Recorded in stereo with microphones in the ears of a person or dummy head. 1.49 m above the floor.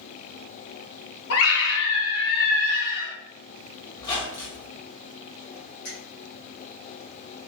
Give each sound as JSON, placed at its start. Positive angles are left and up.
{"t": 1.3, "sound": "a scream", "side_deg": 80, "distance_m": 0.8}
{"t": 4.0, "sound": "a squeak", "side_deg": 25, "distance_m": 0.8}
{"t": 5.8, "sound": "a finger snap", "side_deg": 60, "distance_m": 1.6}